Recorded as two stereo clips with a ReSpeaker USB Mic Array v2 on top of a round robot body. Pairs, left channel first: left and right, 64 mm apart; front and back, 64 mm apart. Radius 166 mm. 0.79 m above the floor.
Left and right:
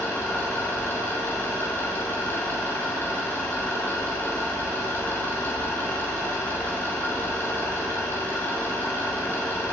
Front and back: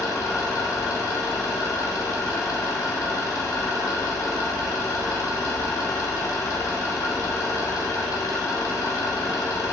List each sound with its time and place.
0.0 s an engine running: 30° left, 1.8 m